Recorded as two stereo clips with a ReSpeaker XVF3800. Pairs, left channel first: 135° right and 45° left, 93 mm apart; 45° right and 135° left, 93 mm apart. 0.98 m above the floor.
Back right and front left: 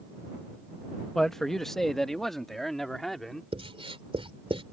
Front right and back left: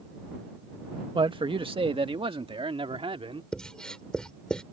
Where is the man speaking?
140° left; by 3.4 s 135° left.